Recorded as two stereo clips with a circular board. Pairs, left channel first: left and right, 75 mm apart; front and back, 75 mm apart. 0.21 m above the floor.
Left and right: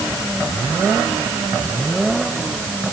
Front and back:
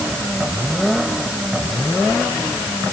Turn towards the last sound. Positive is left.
No sound to turn to.